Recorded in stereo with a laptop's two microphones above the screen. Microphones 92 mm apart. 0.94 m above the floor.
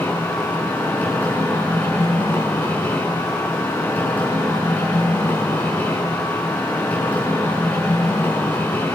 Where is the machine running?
20° left (ahead or behind), 7.5 m.